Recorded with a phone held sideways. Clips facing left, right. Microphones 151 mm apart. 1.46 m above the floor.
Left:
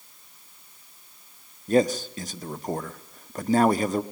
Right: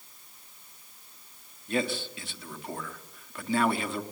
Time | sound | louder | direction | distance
1.7 | a man speaking | left 9 dB | 40° left (ahead or behind) | 0.9 m